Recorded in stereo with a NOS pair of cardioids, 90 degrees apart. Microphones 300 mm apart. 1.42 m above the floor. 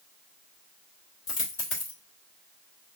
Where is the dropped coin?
60° left, 2.5 m.